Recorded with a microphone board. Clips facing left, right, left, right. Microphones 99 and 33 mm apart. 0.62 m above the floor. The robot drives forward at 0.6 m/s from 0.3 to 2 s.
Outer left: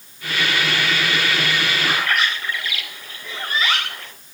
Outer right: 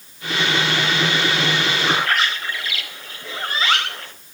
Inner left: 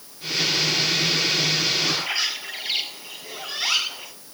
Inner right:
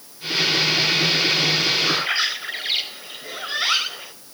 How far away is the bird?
About 3.5 m.